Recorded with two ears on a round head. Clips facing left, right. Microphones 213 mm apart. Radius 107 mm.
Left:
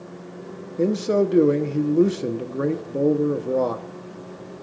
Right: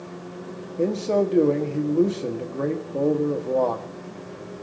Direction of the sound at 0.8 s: 20° left (ahead or behind).